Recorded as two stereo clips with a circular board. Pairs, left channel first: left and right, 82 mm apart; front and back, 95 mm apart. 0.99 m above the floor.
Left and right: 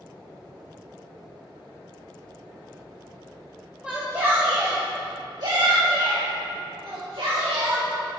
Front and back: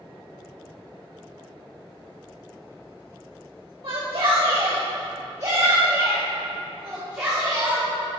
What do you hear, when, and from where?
3.8 s a shout: 165° right, 1.3 m; by 8.2 s 95° right, 2.5 m